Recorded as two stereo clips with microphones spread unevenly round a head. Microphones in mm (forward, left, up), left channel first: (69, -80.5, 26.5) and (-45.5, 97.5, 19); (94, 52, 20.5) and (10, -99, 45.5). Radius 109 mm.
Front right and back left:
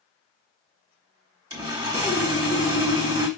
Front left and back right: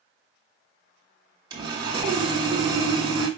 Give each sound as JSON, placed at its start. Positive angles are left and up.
{"t": 1.5, "sound": "sawing", "azimuth_deg": -165, "distance_m": 1.1}